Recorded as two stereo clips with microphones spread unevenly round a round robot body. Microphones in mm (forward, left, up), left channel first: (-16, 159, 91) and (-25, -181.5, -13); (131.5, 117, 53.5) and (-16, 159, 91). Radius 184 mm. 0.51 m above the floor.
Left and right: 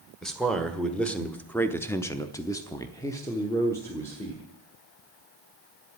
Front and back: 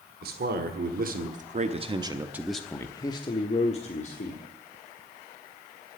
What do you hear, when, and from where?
0.2 s a man speaking: 175° right, 1.8 m; by 4.4 s 5° right, 1.8 m